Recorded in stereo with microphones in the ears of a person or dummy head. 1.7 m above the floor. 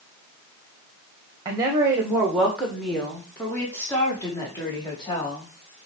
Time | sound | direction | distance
1.4 | a woman speaking | 20° right (ahead or behind) | 1.5 m